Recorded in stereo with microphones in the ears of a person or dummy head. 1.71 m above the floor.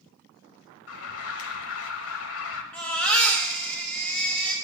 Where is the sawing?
No sawing in this recording.